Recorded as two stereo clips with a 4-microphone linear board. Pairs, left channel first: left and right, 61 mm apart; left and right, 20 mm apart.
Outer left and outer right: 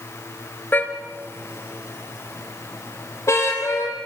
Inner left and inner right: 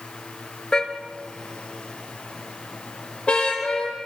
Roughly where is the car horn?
Left.